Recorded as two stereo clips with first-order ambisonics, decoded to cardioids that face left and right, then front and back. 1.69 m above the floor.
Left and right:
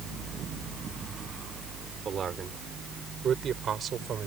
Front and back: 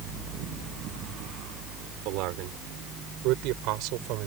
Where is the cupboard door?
I don't hear a cupboard door.